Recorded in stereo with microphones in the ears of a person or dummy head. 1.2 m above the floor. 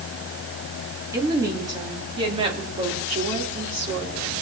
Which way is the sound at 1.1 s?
15° right (ahead or behind).